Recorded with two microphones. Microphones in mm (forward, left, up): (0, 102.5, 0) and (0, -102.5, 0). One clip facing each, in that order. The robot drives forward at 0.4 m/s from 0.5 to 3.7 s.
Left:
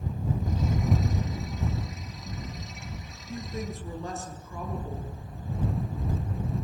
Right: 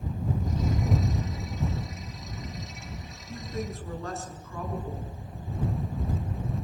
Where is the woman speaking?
15° left (ahead or behind), 6.5 m.